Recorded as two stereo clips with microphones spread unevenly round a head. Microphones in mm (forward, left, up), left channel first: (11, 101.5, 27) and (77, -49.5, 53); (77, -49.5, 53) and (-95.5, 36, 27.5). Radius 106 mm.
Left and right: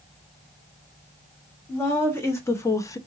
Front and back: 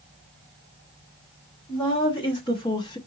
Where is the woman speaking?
40° left, 2 m; by 3.0 s 45° left, 0.6 m.